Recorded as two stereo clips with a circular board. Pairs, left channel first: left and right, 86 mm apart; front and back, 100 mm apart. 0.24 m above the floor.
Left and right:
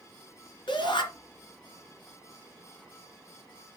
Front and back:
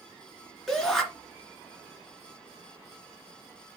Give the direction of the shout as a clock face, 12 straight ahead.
9 o'clock.